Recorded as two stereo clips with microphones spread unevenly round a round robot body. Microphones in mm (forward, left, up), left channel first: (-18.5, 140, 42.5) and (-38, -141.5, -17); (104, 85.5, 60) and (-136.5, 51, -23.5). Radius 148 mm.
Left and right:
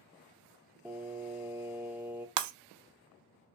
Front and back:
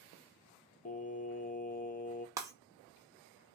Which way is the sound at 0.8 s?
55° right.